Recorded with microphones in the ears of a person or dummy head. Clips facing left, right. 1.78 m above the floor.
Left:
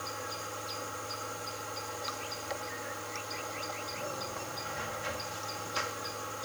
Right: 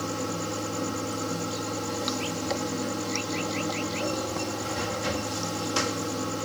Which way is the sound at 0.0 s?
60° right (ahead or behind).